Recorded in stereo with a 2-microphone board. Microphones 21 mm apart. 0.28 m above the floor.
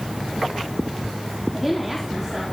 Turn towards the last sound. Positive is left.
turn(degrees=0)  # may be behind; listen again after turning